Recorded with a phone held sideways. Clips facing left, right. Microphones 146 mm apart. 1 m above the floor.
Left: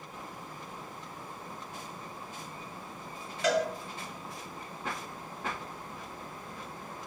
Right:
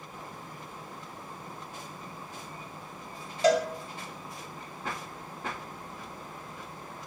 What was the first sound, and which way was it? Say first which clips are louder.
A cowbell: right 4 dB; 35° right (ahead or behind).